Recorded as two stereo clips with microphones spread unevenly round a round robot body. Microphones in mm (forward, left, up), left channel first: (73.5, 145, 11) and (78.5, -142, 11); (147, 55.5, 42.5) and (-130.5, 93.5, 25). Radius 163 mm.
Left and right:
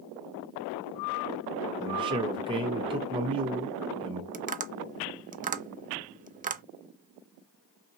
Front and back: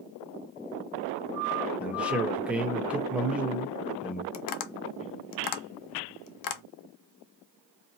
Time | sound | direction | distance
1.8 | a man speaking | 120° right | 0.8 m
4.3 | tapping | 25° right | 0.5 m